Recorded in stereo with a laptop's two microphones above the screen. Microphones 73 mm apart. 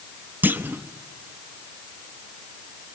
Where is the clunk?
25° right (ahead or behind), 0.8 m.